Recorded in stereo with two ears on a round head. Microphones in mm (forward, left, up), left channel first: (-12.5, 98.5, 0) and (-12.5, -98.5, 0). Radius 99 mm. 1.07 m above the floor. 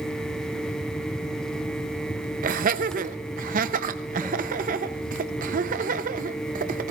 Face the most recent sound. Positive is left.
turn(degrees=-40)  # may be behind; listen again after turning